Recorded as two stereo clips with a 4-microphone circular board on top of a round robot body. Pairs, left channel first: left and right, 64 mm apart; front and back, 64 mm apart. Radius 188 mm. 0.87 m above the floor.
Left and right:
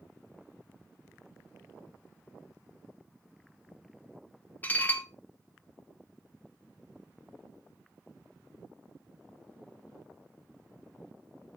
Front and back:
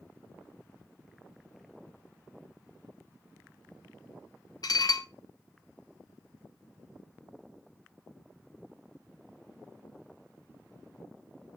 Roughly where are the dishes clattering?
Ahead left.